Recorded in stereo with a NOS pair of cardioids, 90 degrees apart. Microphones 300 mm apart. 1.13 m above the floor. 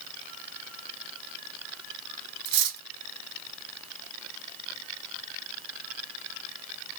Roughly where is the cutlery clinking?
Ahead right.